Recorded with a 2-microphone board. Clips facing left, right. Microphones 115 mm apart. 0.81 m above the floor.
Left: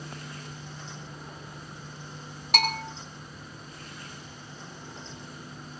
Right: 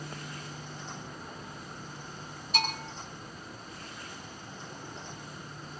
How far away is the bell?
About 4 m.